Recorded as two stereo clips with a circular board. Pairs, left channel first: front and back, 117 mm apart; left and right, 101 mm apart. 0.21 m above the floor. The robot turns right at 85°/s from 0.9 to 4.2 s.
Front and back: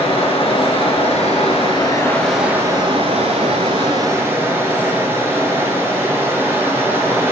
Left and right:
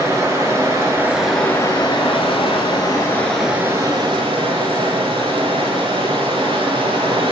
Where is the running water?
30° right, 1.4 m; by 7.3 s 110° right, 1.4 m.